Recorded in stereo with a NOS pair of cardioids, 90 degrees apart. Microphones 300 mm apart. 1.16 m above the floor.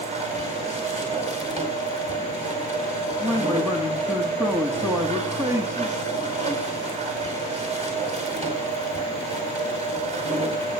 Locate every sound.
0.0 s a machine running: 20° right, 4.5 m
3.2 s a man speaking: 10° right, 2 m